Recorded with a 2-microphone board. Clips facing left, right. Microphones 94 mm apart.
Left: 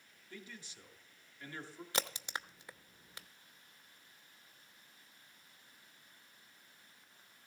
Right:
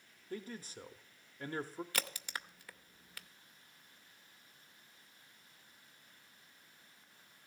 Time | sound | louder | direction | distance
0.3 | a man speaking | right 8 dB | 40° right (ahead or behind) | 0.8 m
1.9 | a crack | left 8 dB | 20° left (ahead or behind) | 0.6 m